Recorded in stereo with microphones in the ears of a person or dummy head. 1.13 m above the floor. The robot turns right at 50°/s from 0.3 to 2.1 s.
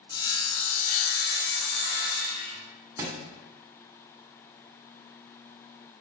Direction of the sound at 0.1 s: 25° left.